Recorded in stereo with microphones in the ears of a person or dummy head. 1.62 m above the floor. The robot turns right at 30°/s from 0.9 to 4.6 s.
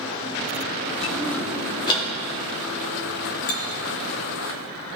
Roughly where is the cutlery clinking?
Left.